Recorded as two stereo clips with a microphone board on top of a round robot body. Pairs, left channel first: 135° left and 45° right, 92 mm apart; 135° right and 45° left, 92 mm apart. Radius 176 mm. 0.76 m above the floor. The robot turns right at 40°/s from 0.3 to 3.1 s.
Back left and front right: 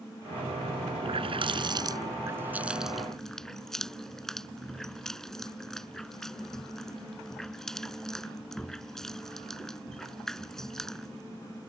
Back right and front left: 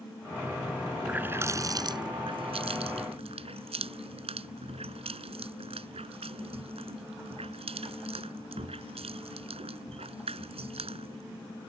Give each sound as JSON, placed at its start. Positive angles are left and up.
{"t": 1.0, "sound": "a running tap", "azimuth_deg": -35}